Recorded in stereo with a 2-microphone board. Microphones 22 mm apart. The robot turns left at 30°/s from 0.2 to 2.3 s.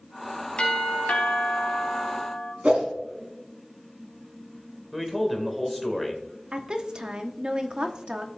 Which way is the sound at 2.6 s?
75° right (ahead or behind).